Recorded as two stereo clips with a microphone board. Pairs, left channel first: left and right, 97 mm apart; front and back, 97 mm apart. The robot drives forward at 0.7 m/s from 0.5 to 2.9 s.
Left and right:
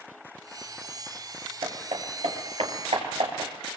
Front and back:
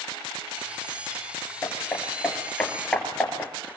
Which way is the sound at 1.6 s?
70° right.